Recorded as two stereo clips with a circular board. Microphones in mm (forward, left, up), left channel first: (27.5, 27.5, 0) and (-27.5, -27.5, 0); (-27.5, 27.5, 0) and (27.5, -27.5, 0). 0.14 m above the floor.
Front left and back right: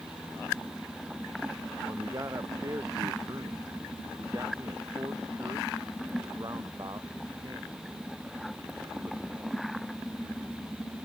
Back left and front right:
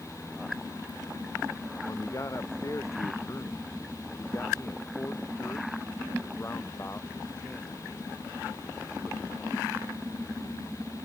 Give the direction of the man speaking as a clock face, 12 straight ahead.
6 o'clock.